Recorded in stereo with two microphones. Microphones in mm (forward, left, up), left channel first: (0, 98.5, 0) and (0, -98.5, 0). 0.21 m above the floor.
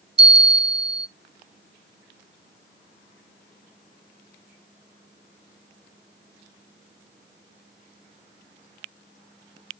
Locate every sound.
0.2 s a bell: 60° right (ahead or behind), 0.6 m